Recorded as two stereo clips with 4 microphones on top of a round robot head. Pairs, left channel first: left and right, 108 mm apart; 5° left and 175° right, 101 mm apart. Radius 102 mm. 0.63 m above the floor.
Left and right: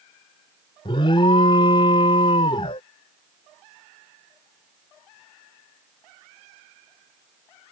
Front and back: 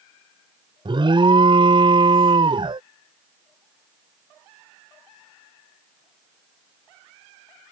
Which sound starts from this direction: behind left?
An alarm, at 0.8 s.